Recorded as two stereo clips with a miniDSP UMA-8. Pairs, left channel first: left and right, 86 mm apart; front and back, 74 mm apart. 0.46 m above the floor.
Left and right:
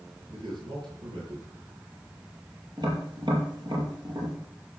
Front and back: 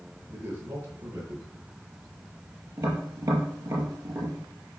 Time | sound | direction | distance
0.3 | a man speaking | 120° right | 8.5 m
2.8 | tapping | 125° right | 6 m